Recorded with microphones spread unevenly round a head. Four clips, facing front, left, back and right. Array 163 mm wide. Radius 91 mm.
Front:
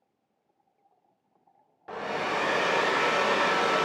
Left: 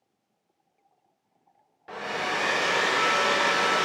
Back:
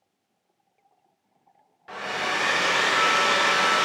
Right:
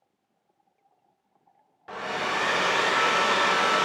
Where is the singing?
No singing in this recording.